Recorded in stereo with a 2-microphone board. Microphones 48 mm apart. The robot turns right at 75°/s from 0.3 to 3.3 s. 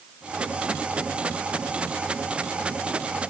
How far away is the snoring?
I don't hear snoring.